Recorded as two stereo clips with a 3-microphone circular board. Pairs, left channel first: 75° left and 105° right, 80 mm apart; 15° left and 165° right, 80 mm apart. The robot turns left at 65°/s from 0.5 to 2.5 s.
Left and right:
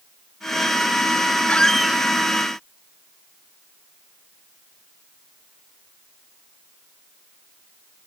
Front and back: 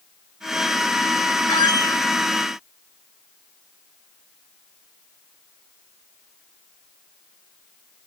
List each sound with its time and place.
1.5 s a squeak: 5° left; by 2.0 s 35° right